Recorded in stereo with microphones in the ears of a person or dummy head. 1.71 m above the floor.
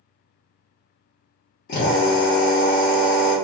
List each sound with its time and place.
1.7 s a drill: 55° left (ahead or behind), 2.0 m